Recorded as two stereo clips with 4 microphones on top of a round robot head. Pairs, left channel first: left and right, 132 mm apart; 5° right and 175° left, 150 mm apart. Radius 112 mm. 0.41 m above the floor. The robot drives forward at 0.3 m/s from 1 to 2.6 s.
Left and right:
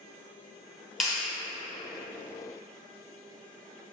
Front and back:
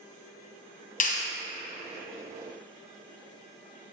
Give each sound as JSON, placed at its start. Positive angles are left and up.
{"t": 1.0, "sound": "a clap", "azimuth_deg": 0, "distance_m": 1.2}